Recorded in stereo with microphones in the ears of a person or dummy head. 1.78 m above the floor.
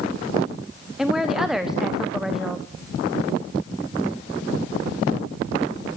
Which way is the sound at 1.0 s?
Centre (ahead or behind).